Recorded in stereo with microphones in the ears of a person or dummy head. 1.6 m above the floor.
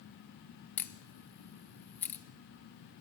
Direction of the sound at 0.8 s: 10° left (ahead or behind).